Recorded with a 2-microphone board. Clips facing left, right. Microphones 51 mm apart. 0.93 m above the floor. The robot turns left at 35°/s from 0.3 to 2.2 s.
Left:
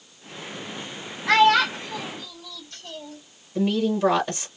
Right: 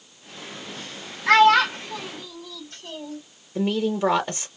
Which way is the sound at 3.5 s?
15° right (ahead or behind).